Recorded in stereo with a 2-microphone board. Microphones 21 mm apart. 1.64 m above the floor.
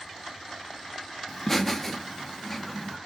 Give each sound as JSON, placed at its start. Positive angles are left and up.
{"t": 1.3, "sound": "laughter", "side_deg": 15, "distance_m": 1.0}